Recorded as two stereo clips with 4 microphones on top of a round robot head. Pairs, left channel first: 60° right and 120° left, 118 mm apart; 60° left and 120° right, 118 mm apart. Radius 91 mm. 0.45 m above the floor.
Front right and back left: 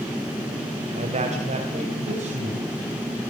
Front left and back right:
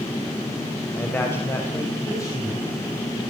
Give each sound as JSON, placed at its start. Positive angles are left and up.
{"t": 1.0, "sound": "a man speaking", "azimuth_deg": 135, "distance_m": 3.0}